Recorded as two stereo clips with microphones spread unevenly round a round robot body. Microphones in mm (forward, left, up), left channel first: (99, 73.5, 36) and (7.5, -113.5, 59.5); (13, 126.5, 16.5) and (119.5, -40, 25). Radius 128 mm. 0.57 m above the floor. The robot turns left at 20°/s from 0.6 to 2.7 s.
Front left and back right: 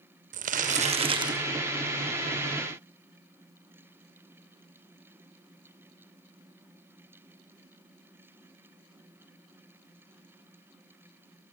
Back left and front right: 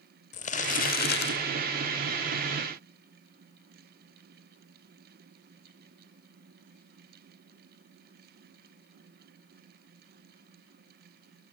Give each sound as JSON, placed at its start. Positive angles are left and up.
{"t": 0.3, "sound": "crumpling", "azimuth_deg": -175, "distance_m": 0.9}